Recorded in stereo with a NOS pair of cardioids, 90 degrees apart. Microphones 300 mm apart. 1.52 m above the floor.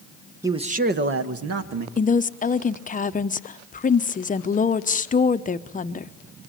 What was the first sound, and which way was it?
A man speaking, 10° right.